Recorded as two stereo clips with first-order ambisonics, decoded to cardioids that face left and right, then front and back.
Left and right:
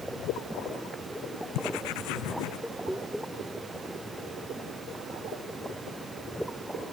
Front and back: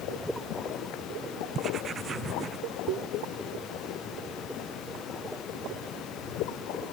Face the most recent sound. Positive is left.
turn(degrees=115)